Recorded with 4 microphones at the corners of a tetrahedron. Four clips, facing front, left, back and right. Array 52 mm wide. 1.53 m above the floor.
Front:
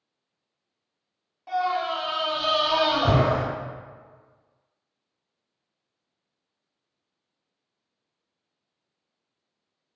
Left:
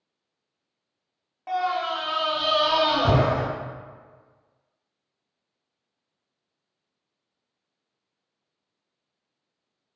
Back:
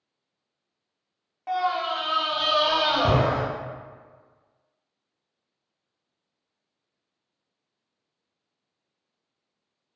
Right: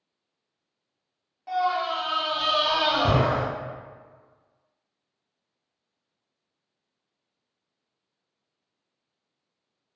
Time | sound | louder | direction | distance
1.5 | a scream | even, even | 140° left | 0.6 m